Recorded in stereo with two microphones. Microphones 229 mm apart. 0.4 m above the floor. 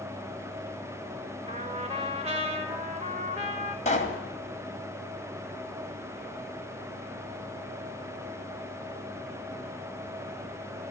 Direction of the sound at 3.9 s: 30° left (ahead or behind).